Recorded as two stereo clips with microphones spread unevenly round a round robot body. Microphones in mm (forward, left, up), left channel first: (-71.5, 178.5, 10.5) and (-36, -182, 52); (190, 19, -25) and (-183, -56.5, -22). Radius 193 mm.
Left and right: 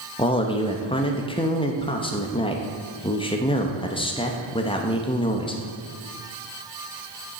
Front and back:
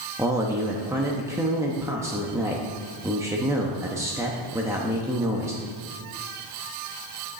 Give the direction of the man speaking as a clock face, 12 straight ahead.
8 o'clock.